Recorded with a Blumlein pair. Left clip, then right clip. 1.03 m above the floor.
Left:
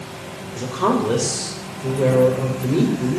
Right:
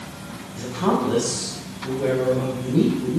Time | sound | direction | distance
0.6 | a woman speaking | 50° left | 4 m